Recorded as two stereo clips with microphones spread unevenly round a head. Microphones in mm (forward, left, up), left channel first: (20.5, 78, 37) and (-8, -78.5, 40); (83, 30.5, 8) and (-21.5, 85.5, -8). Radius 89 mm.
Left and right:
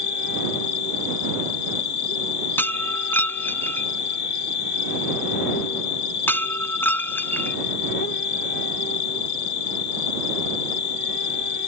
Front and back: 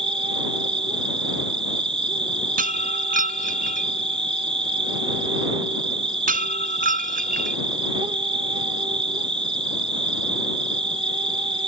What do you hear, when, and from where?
0.0 s an insect: 110° left
2.6 s breaking glass: 160° left